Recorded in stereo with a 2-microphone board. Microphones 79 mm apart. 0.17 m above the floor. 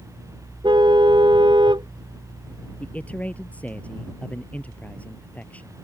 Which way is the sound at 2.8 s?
15° left (ahead or behind).